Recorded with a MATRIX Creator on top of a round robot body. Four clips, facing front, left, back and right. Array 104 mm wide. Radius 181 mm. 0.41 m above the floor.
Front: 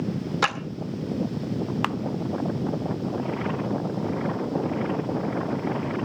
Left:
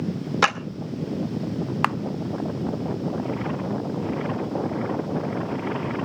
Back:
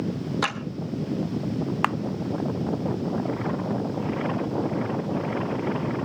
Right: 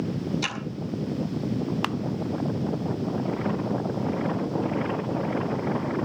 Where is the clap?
80° left, 3 m.